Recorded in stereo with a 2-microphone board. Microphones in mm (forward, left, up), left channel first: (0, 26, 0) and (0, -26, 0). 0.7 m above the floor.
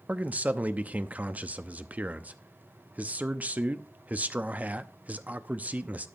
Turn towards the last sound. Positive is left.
turn(degrees=-30)  # may be behind; listen again after turning